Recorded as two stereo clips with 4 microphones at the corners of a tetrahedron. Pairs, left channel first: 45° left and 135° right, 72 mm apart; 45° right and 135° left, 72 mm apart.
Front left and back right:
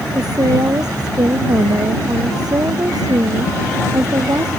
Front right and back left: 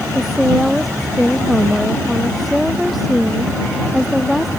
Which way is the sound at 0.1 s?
140° right.